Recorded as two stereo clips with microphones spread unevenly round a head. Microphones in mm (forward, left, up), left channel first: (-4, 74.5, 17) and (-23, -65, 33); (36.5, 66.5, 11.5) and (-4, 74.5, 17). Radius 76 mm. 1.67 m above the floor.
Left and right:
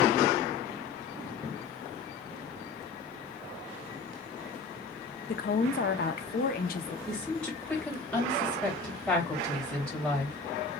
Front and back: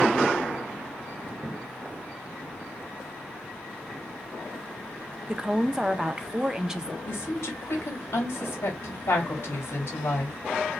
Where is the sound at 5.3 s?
105° left, 0.8 m.